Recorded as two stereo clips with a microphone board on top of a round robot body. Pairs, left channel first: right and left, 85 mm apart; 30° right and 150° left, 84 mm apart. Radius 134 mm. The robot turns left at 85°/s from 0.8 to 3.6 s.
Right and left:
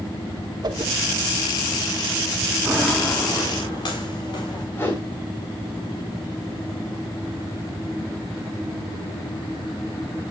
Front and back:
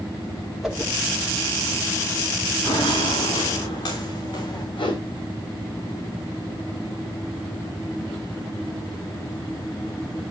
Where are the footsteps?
30° left, 5.5 m; by 4.6 s 55° right, 6.5 m.